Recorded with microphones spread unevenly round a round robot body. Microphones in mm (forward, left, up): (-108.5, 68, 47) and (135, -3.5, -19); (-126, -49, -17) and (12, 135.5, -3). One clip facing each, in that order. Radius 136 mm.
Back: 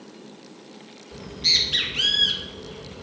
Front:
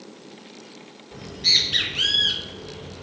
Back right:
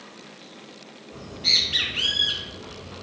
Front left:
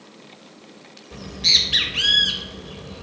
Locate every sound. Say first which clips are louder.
1.1 s a bird: even, front left 3 dB; 75° left, 0.8 m